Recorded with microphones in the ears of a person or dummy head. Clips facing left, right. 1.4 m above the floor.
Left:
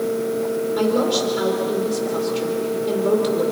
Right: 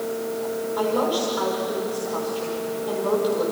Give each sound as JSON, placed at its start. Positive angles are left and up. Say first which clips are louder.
{"t": 0.8, "sound": "a woman speaking", "louder": "left 3 dB", "side_deg": 35, "distance_m": 5.0}